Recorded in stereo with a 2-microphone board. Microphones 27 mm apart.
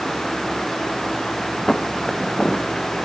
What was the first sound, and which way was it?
Footsteps, 20° left (ahead or behind).